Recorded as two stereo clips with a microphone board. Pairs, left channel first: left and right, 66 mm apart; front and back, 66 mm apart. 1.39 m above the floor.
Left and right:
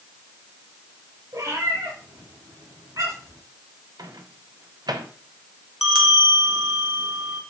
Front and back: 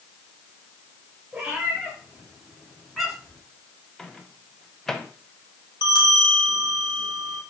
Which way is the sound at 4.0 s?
85° right.